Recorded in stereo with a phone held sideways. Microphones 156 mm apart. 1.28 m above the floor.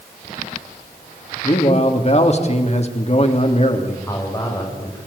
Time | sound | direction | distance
1.4 | a man speaking | 45° left (ahead or behind) | 3 m
4.1 | a man speaking | 20° left (ahead or behind) | 5 m